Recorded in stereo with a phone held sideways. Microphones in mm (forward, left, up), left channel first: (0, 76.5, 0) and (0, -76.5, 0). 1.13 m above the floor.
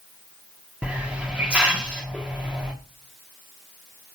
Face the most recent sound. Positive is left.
turn(degrees=-10)  # may be behind; listen again after turning